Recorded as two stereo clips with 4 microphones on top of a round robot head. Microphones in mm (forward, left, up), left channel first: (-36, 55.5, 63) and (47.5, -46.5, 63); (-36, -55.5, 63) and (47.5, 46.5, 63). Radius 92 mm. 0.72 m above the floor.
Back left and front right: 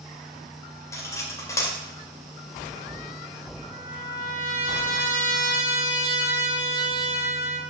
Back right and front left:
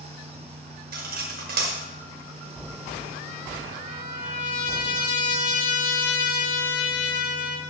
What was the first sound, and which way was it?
Cutlery clinking, 60° left.